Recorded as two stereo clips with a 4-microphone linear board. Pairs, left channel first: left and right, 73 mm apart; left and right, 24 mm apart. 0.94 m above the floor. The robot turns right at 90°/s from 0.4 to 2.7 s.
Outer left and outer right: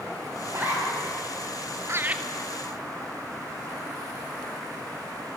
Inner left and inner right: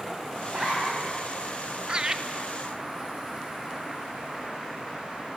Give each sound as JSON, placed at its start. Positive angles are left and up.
{"t": 0.5, "sound": "a zipper", "azimuth_deg": -40, "distance_m": 7.0}
{"t": 1.9, "sound": "laughter", "side_deg": -40, "distance_m": 1.5}